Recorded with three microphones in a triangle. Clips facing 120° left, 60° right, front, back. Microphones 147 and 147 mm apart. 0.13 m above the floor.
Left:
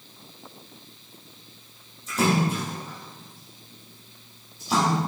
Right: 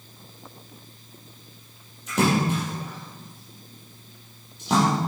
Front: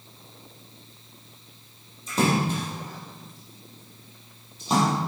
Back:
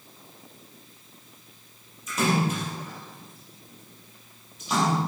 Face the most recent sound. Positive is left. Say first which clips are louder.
# right 1 dB, front 1 dB
turn(degrees=-55)